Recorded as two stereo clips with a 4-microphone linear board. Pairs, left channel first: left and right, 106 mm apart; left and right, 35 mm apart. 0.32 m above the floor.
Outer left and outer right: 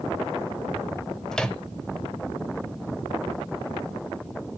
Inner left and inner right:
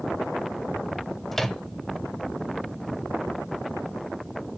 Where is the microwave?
5° left (ahead or behind), 0.8 m.